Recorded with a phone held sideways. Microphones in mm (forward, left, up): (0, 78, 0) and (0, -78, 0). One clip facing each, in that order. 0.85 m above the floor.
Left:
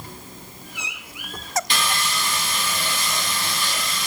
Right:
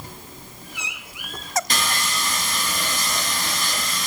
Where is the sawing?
40° right (ahead or behind), 1.1 m.